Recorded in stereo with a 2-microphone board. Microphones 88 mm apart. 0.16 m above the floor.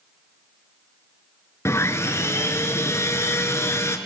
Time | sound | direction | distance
1.6 | sawing | 35° left (ahead or behind) | 1.3 m